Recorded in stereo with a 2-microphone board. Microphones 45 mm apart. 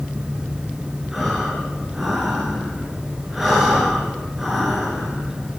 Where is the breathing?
Centre (ahead or behind), 6.5 m.